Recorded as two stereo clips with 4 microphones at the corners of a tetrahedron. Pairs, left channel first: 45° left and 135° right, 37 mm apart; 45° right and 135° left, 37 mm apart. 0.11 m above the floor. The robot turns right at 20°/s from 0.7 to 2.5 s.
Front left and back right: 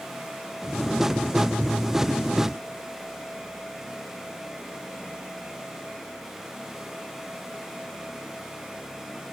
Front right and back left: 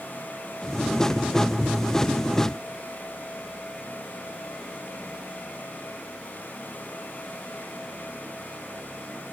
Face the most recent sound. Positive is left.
No sound to turn to.